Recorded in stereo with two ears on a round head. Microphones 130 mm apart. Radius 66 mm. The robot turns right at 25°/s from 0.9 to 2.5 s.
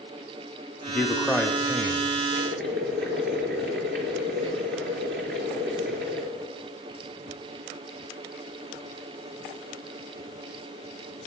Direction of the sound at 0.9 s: 10° left (ahead or behind).